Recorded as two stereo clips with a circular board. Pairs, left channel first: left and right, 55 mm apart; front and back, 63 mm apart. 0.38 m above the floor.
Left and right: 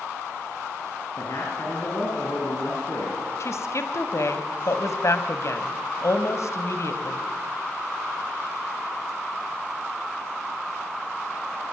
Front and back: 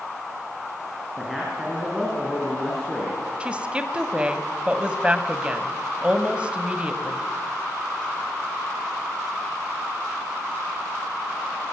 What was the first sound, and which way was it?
A man speaking, 90° left.